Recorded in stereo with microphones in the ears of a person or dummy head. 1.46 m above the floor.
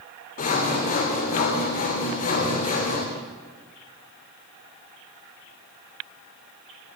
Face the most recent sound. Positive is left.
turn(degrees=40)  # may be behind; listen again after turning